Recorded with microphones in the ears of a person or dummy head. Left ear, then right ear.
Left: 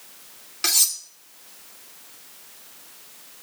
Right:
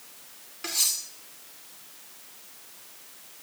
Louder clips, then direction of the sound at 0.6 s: Left 6 dB; 45° left (ahead or behind).